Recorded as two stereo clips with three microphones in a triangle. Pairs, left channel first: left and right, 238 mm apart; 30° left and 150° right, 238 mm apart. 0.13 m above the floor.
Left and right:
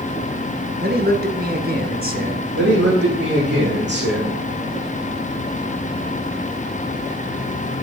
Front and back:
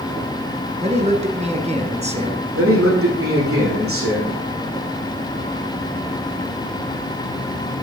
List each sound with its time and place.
0.8 s a man speaking: 105° right, 1.7 m
2.5 s a man speaking: 130° right, 6.5 m